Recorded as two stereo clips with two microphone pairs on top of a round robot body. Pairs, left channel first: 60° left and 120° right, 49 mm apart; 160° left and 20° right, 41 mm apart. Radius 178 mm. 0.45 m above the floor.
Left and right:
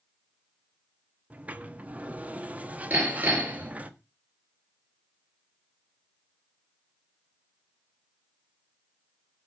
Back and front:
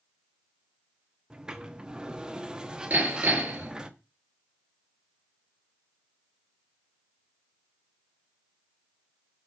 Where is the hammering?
70° right, 6 m.